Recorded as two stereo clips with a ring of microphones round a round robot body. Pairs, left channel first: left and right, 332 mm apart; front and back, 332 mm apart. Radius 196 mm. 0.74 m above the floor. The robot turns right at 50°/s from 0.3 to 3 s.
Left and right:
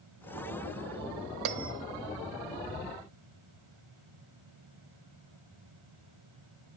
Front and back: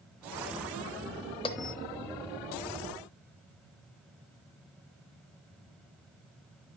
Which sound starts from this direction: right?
A bell, at 1.4 s.